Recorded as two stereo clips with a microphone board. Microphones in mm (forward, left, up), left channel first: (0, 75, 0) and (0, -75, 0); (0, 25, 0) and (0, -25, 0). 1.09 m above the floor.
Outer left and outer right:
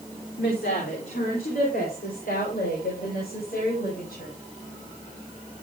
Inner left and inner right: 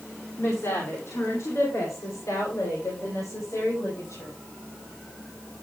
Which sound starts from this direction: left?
A woman speaking, at 0.4 s.